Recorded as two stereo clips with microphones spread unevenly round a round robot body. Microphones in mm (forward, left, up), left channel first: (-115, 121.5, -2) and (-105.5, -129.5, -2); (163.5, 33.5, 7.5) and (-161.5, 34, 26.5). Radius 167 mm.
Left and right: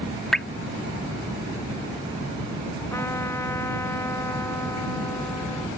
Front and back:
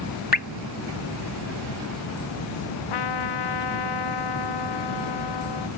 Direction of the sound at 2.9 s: 10° left.